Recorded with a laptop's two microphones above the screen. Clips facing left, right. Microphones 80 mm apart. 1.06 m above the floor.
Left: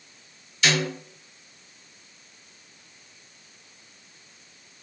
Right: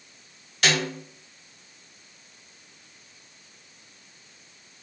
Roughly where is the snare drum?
Right.